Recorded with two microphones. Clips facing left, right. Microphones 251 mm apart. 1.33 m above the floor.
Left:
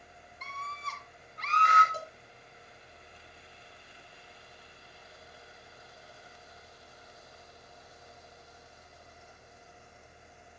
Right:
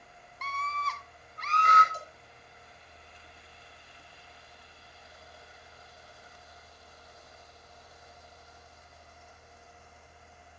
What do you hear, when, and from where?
0.4 s a scream: 75° right (ahead or behind), 0.8 m; by 1.8 s 40° right (ahead or behind), 1.7 m
1.9 s a cowbell: 65° left (ahead or behind), 0.9 m